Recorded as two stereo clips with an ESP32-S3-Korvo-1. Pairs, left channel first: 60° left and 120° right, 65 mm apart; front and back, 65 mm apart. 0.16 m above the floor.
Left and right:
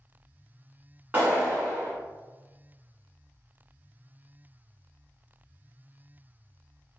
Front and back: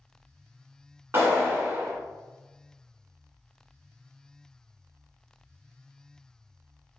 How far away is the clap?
About 1.2 m.